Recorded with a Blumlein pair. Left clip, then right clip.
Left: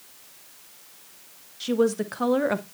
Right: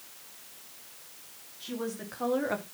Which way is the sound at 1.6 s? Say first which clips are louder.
Left 14 dB; 55° left.